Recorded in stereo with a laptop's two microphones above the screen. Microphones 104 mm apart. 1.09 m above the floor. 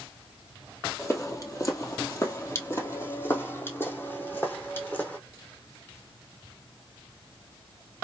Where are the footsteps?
30° left (ahead or behind), 1.3 m; by 5.2 s 15° left (ahead or behind), 2.5 m.